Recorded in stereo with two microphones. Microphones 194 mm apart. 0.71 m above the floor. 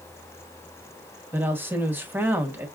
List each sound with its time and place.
1.3 s a woman speaking: 10° right (ahead or behind), 1.0 m